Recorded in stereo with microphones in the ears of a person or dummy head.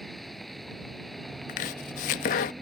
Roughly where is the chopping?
Left.